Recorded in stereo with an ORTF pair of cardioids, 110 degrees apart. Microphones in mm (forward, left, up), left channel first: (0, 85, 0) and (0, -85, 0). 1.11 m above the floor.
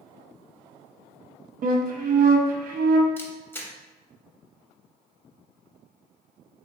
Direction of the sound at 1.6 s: 55° right.